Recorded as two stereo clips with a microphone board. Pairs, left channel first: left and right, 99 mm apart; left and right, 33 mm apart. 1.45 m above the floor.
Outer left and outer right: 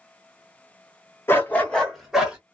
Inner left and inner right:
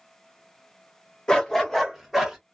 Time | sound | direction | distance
1.3 | a dog barking | 25° left (ahead or behind) | 1.0 m